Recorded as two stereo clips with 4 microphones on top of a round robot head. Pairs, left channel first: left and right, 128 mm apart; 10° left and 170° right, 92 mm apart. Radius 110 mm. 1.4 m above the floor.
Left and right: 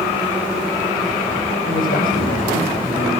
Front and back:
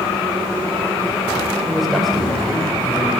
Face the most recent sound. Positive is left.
turn(degrees=100)